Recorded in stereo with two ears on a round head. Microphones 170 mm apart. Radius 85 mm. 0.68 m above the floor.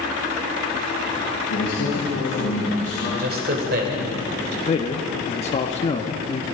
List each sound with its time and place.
1.5 s a man speaking: 70° left (ahead or behind), 4.5 m
3.2 s a man speaking: 55° right (ahead or behind), 2.5 m
4.7 s a man speaking: 35° left (ahead or behind), 0.9 m